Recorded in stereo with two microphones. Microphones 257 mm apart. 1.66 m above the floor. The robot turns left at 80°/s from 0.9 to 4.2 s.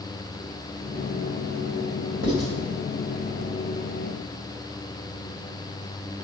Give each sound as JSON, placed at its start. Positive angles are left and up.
{"t": 2.2, "sound": "writing", "side_deg": -60, "distance_m": 2.5}